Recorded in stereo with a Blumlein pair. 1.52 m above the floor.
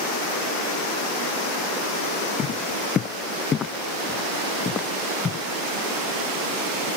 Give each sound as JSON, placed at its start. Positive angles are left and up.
{"t": 2.4, "sound": "footsteps", "azimuth_deg": 25}